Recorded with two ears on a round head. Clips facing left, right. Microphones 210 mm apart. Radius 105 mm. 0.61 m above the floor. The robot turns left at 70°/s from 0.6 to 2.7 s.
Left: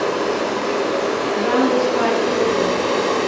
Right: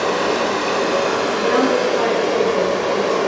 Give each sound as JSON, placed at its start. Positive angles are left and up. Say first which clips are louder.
{"t": 0.0, "sound": "running water", "louder": "right 1 dB", "azimuth_deg": -70, "distance_m": 1.1}
{"t": 1.3, "sound": "a woman speaking", "louder": "even", "azimuth_deg": 80, "distance_m": 2.0}